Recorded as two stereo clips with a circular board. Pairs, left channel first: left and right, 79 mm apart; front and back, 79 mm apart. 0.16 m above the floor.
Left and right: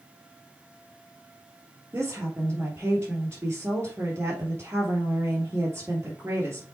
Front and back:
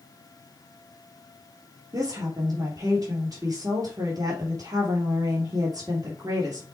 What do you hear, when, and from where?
1.9 s a woman speaking: 140° right, 3 m